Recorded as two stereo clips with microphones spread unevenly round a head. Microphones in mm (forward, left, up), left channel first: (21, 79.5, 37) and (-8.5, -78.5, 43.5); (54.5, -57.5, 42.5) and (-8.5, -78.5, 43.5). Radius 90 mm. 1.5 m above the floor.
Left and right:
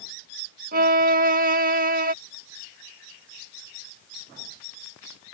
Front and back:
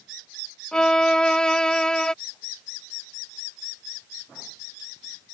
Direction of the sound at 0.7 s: 60° right.